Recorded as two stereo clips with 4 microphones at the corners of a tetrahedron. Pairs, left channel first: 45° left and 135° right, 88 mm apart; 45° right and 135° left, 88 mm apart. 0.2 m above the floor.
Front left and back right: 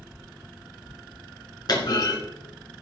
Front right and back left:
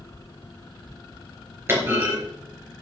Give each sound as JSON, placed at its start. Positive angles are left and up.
{"t": 1.7, "sound": "a clunk", "azimuth_deg": 75, "distance_m": 3.5}